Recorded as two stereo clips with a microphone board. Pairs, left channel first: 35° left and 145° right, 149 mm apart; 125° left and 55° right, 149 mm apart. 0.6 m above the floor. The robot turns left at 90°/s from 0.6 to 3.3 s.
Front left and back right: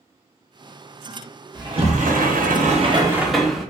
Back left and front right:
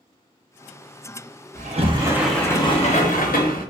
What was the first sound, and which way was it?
A sliding door, 80° right.